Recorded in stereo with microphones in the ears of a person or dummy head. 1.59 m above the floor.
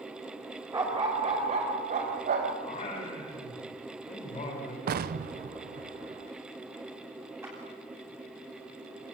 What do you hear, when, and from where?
0.7 s a dog barking: 20° right (ahead or behind), 3.5 m; by 2.5 s 45° right (ahead or behind), 4 m
2.6 s singing: 30° left (ahead or behind), 5.5 m
4.9 s an explosion: 45° right (ahead or behind), 0.7 m
7.4 s a clap: 10° right (ahead or behind), 9.5 m